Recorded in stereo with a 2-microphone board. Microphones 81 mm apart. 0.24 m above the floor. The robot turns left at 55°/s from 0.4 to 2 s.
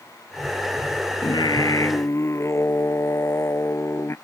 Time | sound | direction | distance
1.2 | singing | 80° left | ?